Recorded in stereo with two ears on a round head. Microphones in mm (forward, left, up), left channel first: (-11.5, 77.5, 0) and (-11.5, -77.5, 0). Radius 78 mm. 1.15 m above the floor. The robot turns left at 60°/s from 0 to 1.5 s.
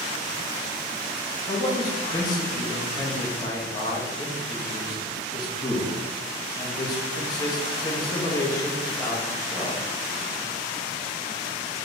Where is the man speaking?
25° left (ahead or behind), 1.4 m; by 9.8 s 20° left (ahead or behind), 1.4 m.